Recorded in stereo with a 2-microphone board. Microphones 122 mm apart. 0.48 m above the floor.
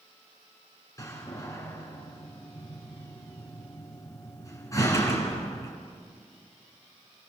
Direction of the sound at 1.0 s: 25° left (ahead or behind).